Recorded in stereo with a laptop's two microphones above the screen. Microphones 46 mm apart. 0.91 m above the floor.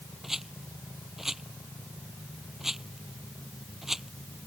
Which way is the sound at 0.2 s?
5° right (ahead or behind).